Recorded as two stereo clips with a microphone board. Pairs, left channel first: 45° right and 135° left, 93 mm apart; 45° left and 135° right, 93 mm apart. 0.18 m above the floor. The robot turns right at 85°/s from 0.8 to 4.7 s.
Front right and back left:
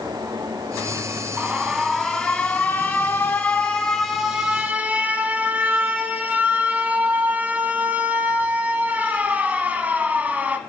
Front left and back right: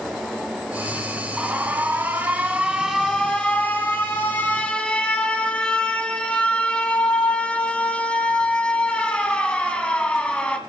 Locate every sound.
1.4 s an alarm: 175° left, 1.3 m; by 10.6 s 100° left, 1.3 m